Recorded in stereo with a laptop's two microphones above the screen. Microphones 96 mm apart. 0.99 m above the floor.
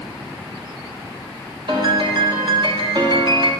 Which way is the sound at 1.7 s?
55° right (ahead or behind).